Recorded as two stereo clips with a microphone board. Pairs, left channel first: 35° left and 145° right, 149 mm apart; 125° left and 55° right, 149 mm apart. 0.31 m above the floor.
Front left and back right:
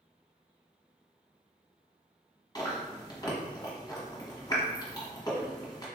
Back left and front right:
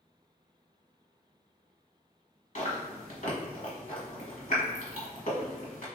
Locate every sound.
2.5 s chewing: 95° left, 1.3 m